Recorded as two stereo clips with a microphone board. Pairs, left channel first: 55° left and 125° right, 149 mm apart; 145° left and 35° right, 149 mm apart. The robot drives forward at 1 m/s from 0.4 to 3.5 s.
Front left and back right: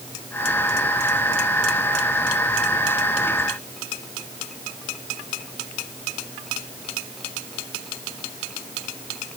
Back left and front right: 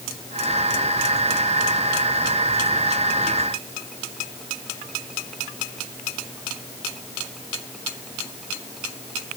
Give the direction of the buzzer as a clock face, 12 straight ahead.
I don't hear a buzzer.